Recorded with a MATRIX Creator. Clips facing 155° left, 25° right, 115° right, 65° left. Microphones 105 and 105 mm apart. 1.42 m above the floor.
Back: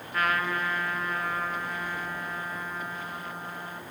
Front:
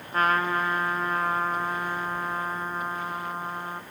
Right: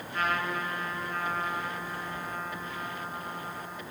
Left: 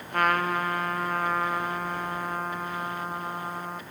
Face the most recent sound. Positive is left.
turn(degrees=35)